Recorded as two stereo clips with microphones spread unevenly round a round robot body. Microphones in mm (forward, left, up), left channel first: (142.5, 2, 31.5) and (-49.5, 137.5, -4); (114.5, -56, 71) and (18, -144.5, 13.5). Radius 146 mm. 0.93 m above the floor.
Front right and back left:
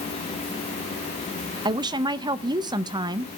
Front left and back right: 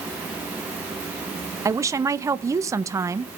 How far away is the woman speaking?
About 0.5 m.